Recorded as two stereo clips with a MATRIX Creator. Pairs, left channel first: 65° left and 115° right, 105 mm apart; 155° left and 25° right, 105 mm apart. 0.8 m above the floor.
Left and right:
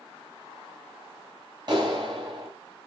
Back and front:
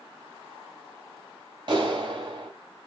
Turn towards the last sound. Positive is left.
turn(degrees=-65)